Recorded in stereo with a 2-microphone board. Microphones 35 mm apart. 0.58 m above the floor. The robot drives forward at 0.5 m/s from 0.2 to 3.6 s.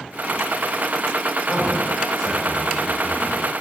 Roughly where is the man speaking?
Centre.